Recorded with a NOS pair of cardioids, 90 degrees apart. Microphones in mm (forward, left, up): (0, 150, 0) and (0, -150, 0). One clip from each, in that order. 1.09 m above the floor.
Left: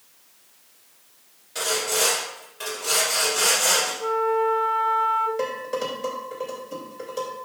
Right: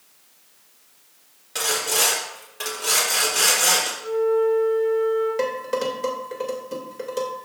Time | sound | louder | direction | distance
1.6 | sawing | right 2 dB | 55° right | 3.5 m
4.0 | a flute | right 1 dB | 70° left | 2 m
5.4 | dishes clattering | right 3 dB | 35° right | 3 m